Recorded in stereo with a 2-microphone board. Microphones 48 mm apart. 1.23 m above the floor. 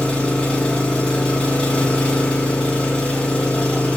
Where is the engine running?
15° left (ahead or behind), 0.9 m.